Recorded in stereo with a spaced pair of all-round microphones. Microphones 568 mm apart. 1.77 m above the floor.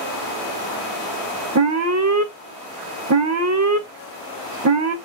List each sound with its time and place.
1.6 s an alarm: 30° right (ahead or behind), 0.6 m